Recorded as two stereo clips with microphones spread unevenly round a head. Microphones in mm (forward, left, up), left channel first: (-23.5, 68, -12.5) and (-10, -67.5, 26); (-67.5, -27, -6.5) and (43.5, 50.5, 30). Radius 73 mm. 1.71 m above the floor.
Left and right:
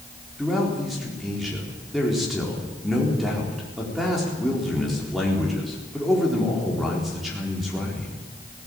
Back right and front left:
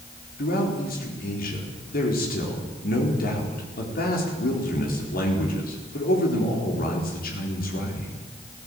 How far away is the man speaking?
About 4.5 m.